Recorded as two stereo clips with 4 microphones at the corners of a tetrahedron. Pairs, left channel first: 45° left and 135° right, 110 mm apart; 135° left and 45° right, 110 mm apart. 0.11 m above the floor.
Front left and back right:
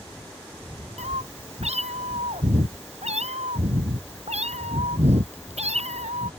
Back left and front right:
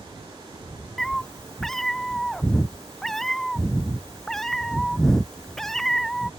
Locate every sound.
1.0 s a cat meowing: 140° right